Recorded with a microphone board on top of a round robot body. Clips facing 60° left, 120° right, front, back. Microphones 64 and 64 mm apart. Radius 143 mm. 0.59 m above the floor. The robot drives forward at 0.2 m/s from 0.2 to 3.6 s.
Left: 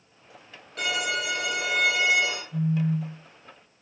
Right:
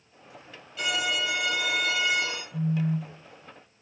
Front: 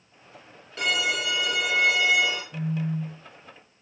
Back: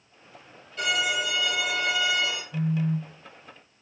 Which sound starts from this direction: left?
A phone buzzing, at 2.5 s.